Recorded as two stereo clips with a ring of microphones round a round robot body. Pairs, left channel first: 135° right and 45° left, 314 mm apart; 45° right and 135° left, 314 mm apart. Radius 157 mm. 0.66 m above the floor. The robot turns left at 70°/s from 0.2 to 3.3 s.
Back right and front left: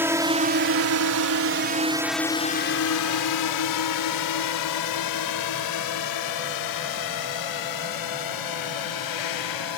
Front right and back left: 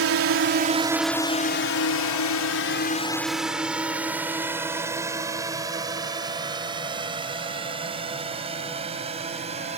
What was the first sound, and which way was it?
A drone, 125° left.